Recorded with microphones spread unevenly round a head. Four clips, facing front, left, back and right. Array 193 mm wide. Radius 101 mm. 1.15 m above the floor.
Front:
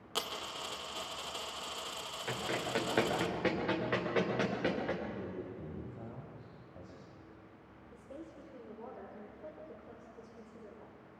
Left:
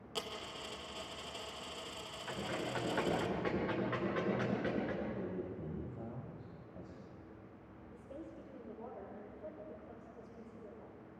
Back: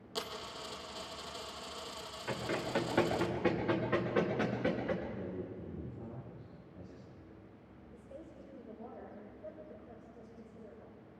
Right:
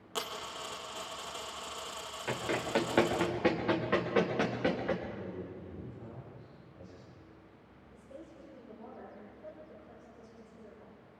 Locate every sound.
0.1 s a dropped coin: 25° right, 1.7 m
2.3 s running footsteps: 60° right, 7 m; by 5.0 s 50° right, 7 m
5.1 s a man speaking: 25° left, 6 m
7.9 s a woman speaking: 5° left, 4.5 m